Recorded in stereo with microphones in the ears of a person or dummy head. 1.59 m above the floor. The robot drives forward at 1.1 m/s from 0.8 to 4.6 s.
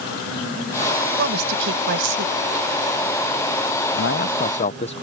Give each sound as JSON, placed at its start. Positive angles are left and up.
{"t": 1.2, "sound": "a woman speaking", "side_deg": -65}
{"t": 4.0, "sound": "a man speaking", "side_deg": 65}